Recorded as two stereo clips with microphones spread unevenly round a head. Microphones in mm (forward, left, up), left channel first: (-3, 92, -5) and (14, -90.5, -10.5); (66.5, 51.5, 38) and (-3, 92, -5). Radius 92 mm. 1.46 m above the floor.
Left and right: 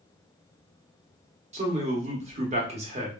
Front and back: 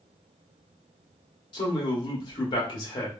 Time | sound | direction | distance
1.5 | a man speaking | 30° right | 1.0 m